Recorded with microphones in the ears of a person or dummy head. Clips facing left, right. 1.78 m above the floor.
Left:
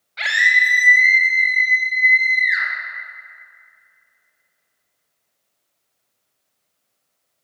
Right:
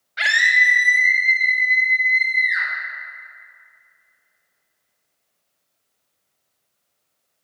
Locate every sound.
0.2 s a scream: 20° right (ahead or behind), 0.5 m; by 2.7 s 75° left (ahead or behind), 3 m